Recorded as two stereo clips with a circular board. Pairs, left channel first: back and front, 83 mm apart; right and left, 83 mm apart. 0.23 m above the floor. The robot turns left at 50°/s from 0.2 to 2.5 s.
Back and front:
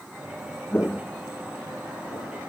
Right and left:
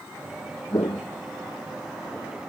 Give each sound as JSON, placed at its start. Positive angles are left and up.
{"t": 0.7, "sound": "footsteps", "azimuth_deg": -110}